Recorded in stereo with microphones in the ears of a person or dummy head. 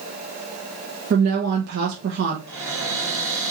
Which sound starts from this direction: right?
A woman speaking, at 1.1 s.